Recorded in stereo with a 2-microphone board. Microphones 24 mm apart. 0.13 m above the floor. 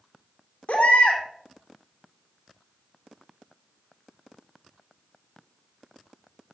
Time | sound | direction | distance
0.7 | a baby crying | 75° left (ahead or behind) | 2 m